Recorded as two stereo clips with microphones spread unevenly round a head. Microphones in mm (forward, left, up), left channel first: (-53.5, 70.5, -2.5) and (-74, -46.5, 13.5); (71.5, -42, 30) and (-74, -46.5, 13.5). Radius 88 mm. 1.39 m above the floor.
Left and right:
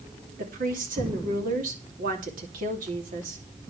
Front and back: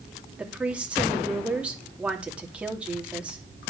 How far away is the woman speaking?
About 2.5 m.